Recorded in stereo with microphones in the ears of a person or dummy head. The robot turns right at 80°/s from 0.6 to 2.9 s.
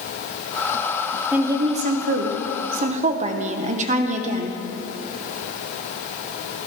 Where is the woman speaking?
175° right, 0.9 m; by 4.6 s 50° right, 0.9 m.